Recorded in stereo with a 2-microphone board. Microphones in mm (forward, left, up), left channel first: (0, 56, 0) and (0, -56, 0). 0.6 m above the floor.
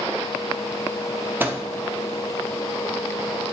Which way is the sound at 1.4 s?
15° right (ahead or behind).